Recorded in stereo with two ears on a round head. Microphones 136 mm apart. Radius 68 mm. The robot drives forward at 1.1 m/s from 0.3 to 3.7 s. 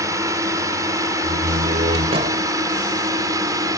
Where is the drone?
20° right (ahead or behind); by 3.8 s 25° right (ahead or behind).